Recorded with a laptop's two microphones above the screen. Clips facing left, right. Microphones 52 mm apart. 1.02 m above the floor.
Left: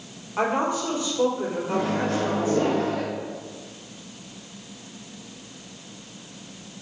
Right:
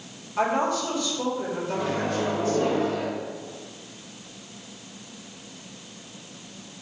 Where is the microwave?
70° left (ahead or behind), 1.7 m.